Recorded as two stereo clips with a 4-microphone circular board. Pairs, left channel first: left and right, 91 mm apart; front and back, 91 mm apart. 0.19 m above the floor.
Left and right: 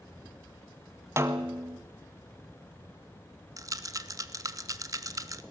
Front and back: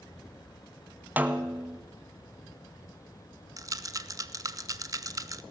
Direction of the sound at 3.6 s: 135° right.